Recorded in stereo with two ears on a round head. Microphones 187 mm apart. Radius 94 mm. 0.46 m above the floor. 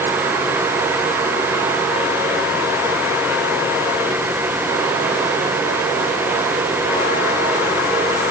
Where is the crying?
No crying in this recording.